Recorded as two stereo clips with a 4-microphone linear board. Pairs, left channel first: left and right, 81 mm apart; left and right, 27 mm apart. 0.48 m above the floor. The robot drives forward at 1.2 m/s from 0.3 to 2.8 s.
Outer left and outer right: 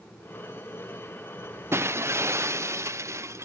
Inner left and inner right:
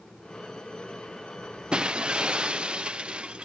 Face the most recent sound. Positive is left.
turn(degrees=-35)  # may be behind; listen again after turning